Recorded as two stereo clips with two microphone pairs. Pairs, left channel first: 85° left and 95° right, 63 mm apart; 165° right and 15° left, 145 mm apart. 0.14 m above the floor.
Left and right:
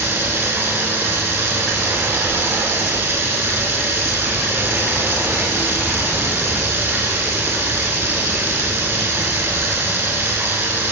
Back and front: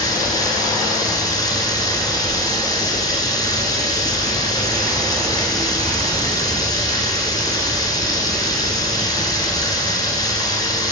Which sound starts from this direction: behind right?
Running water, at 0.0 s.